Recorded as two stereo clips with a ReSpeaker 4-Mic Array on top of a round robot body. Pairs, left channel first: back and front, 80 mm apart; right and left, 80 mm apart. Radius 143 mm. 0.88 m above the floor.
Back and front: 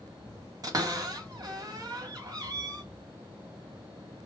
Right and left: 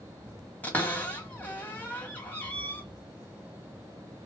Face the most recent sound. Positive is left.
turn(degrees=-25)